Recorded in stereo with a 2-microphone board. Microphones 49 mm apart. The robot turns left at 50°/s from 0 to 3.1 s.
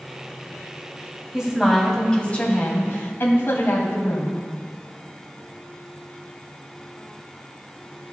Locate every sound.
1.3 s a woman speaking: 160° right, 1.9 m; by 4.5 s 110° left, 1.9 m